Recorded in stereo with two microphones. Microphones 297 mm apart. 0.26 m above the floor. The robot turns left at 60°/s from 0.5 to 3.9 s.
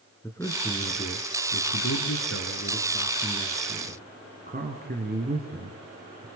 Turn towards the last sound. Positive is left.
turn(degrees=-35)